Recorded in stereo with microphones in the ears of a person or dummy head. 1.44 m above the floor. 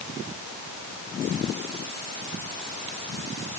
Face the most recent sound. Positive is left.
No sound to turn to.